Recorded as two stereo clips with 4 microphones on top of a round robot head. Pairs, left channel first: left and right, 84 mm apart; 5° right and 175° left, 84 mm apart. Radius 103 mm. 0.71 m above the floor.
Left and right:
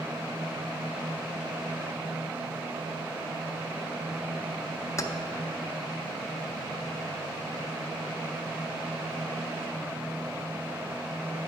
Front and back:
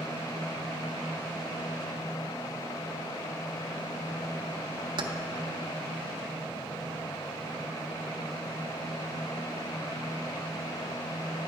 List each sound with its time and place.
5.0 s keys jangling: 145° left, 0.6 m